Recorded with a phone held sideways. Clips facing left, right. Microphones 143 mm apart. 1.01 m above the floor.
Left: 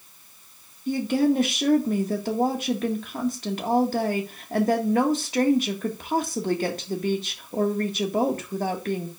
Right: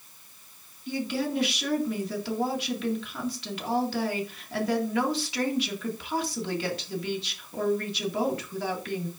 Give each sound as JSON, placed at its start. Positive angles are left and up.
{"t": 0.9, "sound": "a woman speaking", "side_deg": 45, "distance_m": 1.7}